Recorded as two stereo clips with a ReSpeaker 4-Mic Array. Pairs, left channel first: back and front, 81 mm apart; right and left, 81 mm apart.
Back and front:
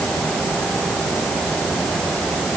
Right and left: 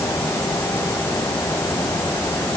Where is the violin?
I don't hear a violin.